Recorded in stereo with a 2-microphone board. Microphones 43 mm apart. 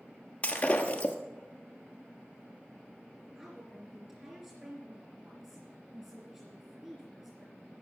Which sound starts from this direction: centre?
A woman speaking, at 3.4 s.